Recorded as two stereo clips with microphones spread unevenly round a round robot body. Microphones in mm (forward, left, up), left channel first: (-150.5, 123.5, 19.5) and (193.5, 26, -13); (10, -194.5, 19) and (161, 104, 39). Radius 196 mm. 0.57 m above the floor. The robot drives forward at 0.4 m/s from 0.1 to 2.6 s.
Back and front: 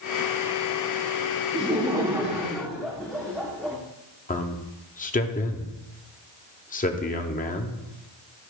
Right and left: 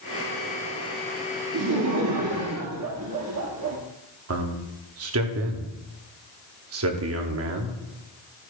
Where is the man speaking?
100° left, 1.4 m.